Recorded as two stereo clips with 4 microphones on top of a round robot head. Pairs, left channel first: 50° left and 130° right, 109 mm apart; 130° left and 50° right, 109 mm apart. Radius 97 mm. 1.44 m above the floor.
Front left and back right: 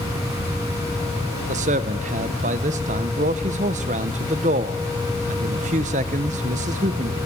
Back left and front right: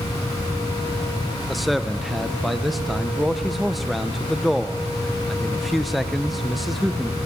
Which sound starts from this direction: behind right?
A man speaking, at 1.5 s.